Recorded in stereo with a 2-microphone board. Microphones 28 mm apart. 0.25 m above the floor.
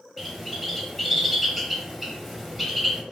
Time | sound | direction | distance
0.2 | a bird | centre (ahead or behind) | 1.2 m